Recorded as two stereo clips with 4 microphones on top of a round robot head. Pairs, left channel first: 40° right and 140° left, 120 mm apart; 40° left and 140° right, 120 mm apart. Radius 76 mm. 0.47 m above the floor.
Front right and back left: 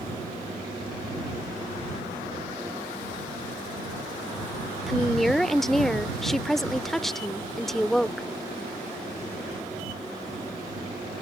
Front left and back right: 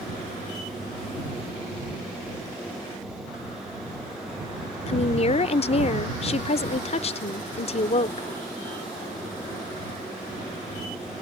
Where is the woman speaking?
50° left.